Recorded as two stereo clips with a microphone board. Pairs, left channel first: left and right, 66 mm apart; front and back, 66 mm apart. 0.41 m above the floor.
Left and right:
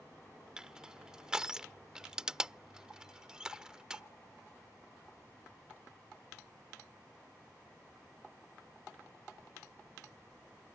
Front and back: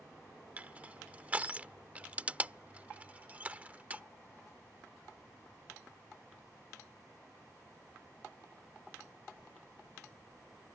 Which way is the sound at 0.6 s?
155° right.